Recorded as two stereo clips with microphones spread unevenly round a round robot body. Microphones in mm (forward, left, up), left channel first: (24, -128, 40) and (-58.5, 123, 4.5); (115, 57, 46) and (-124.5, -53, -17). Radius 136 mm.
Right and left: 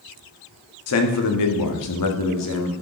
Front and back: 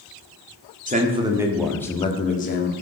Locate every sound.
0.9 s a man speaking: 105° right, 1.8 m; by 2.7 s 30° right, 2.0 m